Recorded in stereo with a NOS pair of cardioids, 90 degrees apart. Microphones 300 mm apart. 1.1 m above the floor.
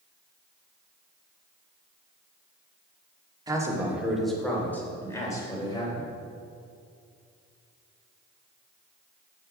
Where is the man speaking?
15° right, 2 m; by 6.1 s 15° left, 4 m.